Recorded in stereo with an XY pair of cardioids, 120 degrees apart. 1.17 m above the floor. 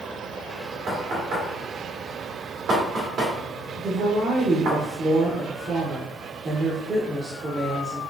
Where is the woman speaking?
35° right, 1.1 m.